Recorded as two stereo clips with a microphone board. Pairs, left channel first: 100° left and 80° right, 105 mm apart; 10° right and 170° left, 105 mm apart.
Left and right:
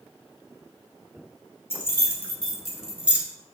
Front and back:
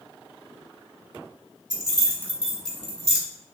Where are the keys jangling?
155° left, 1.1 m; by 3.2 s 15° right, 0.9 m.